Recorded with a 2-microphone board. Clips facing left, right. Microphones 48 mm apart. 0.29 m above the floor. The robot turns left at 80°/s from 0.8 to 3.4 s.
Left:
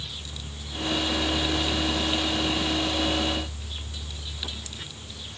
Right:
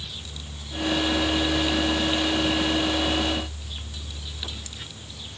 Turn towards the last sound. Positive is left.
No sound to turn to.